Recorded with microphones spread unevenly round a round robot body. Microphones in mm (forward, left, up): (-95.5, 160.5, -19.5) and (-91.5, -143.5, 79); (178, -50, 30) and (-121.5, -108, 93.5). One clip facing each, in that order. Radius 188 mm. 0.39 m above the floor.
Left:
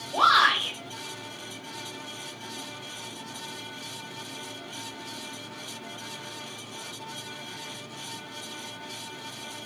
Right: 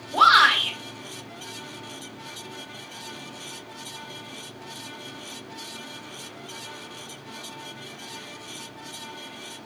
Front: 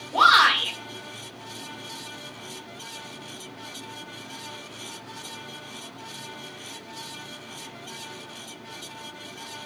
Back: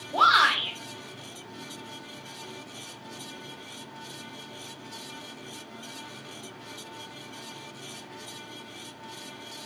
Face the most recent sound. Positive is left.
turn(degrees=0)